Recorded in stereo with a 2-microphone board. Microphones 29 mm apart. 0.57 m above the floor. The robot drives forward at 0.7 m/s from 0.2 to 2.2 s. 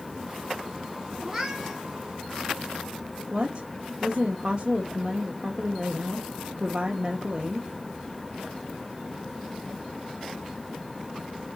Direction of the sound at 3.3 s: 30° right (ahead or behind).